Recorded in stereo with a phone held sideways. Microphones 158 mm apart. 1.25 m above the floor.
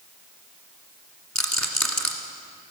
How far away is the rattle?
About 1.7 m.